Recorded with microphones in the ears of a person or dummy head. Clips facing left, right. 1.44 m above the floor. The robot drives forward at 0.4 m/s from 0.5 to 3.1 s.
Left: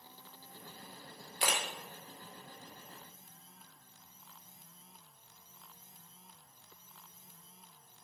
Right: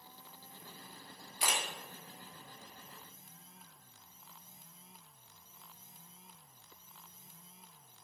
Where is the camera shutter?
50° left (ahead or behind), 0.7 m; by 1.6 s 45° left (ahead or behind), 0.7 m.